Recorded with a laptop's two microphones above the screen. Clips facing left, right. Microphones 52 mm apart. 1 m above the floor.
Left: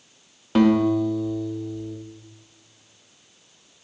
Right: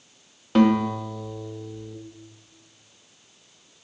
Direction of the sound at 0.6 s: Centre (ahead or behind).